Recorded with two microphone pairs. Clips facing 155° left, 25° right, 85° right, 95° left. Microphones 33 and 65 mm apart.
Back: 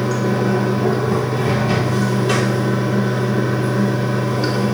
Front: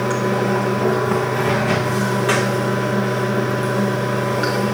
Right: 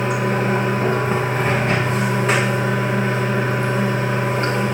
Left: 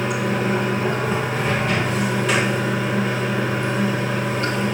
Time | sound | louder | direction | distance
0.0 | running water | even, right 2 dB | 30° right | 1.8 m